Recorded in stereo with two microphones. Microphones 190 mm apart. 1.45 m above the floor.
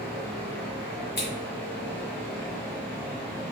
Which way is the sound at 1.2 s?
55° left (ahead or behind).